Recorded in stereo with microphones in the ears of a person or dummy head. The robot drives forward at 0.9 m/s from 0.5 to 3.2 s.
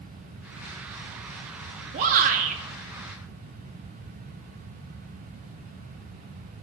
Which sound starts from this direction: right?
A shout, at 1.9 s.